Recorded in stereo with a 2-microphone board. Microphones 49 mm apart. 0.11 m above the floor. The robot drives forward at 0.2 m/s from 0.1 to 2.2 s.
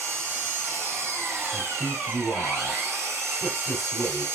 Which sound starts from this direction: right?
An engine running, at 0.0 s.